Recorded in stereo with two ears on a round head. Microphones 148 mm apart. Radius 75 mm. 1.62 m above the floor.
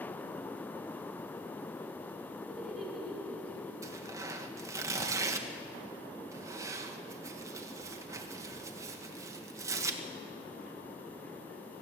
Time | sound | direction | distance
2.5 | laughter | centre (ahead or behind) | 5 m
3.8 | tearing paper | 20° right (ahead or behind) | 1.6 m